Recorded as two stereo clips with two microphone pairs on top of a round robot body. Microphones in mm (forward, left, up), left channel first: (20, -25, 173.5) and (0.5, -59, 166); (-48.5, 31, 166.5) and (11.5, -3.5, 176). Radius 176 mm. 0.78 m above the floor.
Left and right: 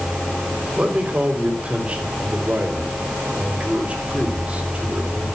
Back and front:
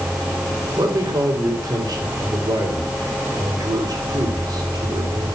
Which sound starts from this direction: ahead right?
A man speaking, at 0.8 s.